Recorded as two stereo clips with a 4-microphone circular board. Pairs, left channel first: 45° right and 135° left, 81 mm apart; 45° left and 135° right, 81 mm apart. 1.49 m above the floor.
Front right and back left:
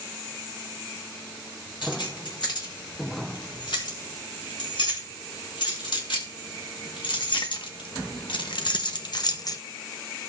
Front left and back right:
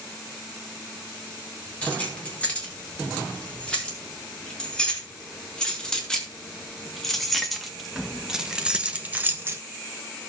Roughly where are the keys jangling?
Ahead right.